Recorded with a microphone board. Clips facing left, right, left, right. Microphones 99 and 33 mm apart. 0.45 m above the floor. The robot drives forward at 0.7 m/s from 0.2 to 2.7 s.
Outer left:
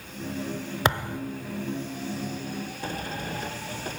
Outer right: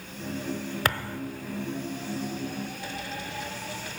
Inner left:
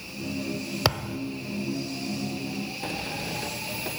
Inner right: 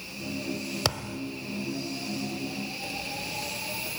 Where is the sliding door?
45° left (ahead or behind), 0.5 m.